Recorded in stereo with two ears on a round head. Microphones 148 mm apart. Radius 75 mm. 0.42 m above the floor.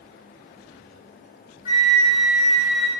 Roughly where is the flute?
Left.